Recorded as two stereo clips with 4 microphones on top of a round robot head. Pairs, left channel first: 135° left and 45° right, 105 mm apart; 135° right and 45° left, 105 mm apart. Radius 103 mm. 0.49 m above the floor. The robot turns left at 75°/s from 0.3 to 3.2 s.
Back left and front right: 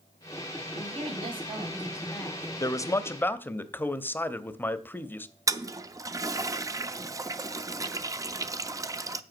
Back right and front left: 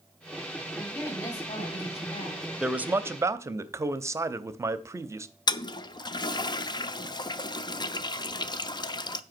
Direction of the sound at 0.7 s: 35° right.